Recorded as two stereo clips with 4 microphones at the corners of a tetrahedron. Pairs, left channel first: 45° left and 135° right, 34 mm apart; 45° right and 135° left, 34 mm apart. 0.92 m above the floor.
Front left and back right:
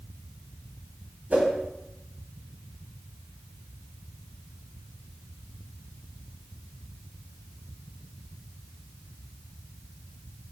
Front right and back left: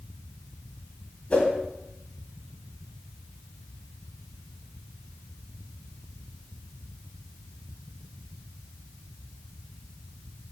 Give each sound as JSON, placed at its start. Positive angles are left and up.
{"t": 1.3, "sound": "a whoosh", "azimuth_deg": -95, "distance_m": 3.0}